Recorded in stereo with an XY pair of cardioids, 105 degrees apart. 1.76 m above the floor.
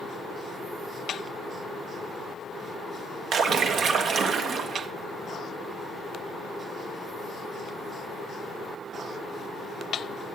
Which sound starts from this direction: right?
A splash, at 3.3 s.